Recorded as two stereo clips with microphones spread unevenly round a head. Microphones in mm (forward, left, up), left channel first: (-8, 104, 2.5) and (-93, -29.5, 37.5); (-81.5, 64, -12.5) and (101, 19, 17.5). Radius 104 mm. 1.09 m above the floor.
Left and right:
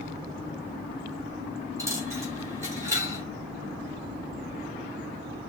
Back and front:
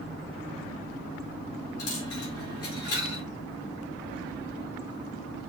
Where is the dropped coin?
170° left, 3 m.